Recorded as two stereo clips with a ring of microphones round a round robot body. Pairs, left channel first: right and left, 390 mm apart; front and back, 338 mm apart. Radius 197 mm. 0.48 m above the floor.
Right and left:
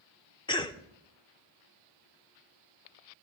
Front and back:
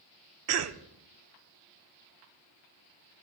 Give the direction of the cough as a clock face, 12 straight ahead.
5 o'clock.